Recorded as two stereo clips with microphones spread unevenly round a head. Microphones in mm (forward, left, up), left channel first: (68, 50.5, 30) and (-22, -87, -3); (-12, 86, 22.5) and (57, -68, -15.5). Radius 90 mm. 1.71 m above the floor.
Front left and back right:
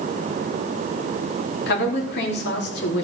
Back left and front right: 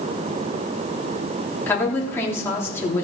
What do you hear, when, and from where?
1.7 s a woman speaking: 40° left, 4 m